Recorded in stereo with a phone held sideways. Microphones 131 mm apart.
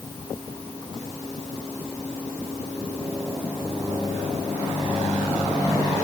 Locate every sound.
Only background noise.